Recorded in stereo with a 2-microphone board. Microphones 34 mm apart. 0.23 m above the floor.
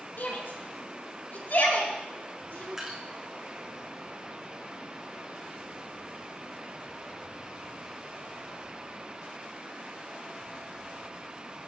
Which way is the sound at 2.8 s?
15° right (ahead or behind).